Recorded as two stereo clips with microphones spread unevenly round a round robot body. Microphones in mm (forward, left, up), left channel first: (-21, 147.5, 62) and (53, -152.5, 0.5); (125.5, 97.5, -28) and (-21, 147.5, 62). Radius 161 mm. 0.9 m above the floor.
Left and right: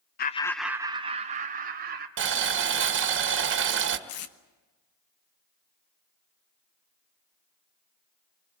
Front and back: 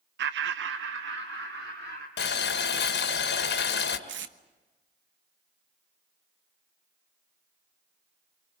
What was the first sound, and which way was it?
Laughter, 160° left.